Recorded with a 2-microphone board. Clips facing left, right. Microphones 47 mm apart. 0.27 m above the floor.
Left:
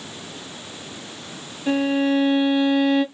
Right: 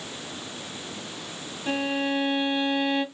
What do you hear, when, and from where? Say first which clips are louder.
1.7 s a violin: left 7 dB; 10° left (ahead or behind), 2 m